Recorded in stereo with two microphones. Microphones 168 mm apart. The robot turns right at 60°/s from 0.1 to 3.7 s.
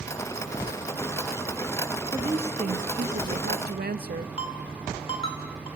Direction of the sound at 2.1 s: 160° right.